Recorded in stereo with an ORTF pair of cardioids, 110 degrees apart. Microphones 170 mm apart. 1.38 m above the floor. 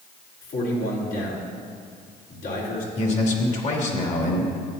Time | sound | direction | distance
0.4 | a man speaking | 65° left | 3.5 m
3.0 | a man speaking | 45° left | 2.5 m